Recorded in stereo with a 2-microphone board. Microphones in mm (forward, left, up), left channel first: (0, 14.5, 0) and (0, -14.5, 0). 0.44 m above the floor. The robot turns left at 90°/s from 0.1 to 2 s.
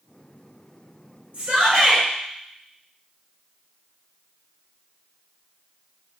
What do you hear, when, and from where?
1.3 s a shout: 65° right, 1.7 m; by 2.0 s 125° right, 1.7 m